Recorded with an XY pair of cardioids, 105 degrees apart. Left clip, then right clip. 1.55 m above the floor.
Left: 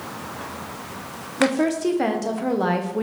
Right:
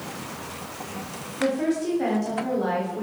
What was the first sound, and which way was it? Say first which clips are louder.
A woman speaking: left 4 dB; 60° left.